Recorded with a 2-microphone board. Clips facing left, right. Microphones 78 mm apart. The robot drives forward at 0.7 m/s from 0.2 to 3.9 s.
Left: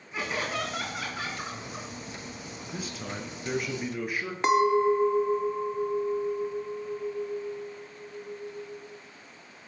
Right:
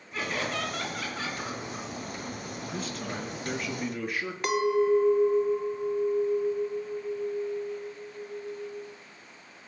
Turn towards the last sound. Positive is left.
turn(degrees=25)  # may be behind; listen again after turning